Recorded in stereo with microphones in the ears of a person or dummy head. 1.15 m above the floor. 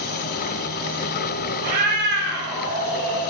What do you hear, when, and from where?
1.6 s a cat meowing: 40° right (ahead or behind), 1.8 m; by 3.3 s 75° right (ahead or behind), 2.5 m